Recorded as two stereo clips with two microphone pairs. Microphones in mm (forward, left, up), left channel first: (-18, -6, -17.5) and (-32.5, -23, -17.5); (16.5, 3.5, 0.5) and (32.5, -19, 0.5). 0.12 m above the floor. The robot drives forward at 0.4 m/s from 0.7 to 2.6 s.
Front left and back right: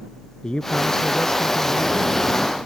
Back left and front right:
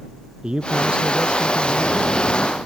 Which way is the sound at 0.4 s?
5° right.